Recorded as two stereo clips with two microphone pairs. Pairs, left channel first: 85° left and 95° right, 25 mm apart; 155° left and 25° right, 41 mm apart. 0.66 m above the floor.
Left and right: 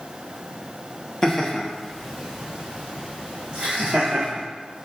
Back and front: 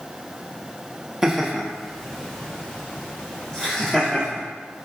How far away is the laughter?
About 0.8 m.